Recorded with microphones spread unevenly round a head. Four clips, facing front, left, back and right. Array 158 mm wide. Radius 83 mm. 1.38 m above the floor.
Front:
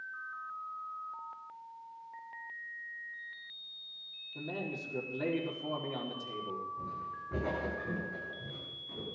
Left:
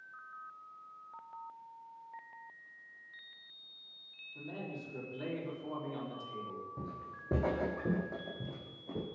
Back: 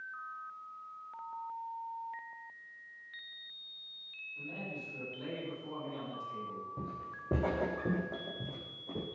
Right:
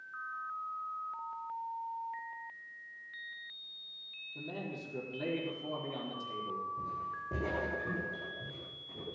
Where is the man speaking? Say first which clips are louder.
Right 2 dB, front 5 dB; 15° right, 4.5 m.